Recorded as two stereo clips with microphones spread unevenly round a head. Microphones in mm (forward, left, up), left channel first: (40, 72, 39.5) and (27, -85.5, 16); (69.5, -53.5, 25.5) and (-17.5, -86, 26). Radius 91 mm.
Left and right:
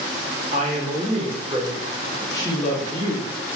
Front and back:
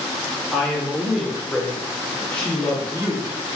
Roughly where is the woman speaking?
Ahead right.